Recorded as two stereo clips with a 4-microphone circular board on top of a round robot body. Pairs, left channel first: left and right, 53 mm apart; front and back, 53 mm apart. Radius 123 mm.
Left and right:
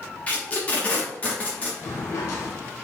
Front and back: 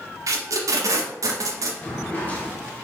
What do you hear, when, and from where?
0.3 s tape being pulled: 155° left, 0.5 m
1.8 s a drawer: 65° left, 0.8 m